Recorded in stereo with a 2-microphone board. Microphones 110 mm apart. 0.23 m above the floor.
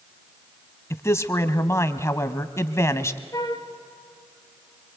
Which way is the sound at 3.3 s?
35° left (ahead or behind).